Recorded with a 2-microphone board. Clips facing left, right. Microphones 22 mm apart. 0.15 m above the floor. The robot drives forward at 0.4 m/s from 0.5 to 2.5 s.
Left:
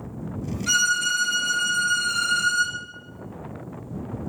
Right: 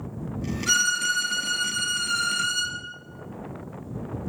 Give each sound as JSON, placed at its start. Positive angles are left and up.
{"t": 0.7, "sound": "a violin", "side_deg": 0, "distance_m": 0.7}